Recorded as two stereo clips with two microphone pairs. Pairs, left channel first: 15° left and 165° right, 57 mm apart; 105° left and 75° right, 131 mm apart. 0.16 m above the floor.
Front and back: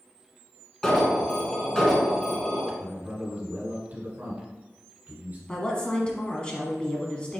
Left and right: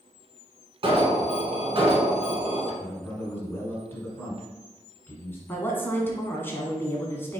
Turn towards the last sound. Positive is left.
turn(degrees=55)